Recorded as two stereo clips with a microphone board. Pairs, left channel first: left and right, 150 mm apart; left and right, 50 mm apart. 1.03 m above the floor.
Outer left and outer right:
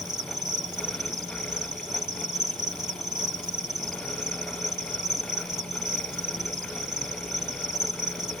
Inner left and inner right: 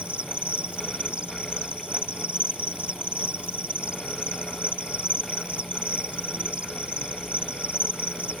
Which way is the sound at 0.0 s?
25° right (ahead or behind).